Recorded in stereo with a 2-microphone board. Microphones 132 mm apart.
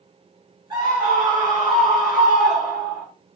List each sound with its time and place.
0.7 s a scream: 30° right (ahead or behind), 4.5 m; by 3.0 s 25° right (ahead or behind), 5.5 m